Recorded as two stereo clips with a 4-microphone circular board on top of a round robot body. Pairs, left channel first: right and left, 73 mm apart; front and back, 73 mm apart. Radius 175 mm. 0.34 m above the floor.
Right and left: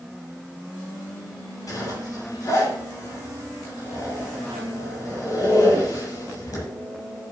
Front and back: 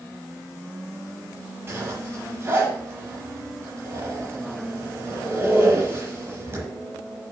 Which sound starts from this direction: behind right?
A zipper, at 1.7 s.